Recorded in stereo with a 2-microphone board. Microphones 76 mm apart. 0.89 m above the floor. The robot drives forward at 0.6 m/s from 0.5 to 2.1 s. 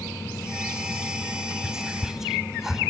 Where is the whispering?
5° right (ahead or behind), 3 m.